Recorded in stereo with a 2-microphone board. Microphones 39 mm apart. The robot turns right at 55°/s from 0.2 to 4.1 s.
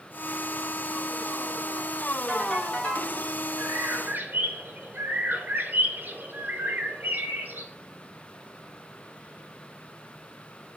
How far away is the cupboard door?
No cupboard door in this recording.